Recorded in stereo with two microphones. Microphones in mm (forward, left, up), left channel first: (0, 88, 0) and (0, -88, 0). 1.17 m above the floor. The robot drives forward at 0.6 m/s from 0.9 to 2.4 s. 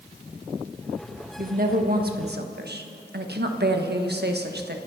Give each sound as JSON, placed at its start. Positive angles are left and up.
{"t": 1.4, "sound": "a woman speaking", "side_deg": -50, "distance_m": 1.7}